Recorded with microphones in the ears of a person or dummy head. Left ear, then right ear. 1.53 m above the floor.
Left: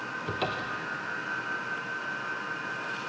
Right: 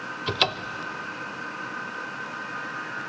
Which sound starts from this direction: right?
A cupboard door, at 0.3 s.